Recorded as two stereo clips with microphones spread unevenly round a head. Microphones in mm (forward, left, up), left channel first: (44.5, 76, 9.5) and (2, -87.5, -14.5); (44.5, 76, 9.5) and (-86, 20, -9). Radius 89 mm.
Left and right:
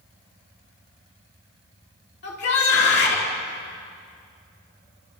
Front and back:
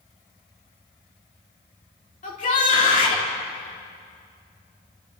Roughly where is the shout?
Ahead left.